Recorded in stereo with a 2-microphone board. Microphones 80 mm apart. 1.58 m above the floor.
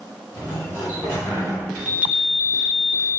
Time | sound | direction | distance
0.3 | a sliding door | 40° left (ahead or behind) | 1.5 m
1.8 | a chime | 15° right (ahead or behind) | 0.5 m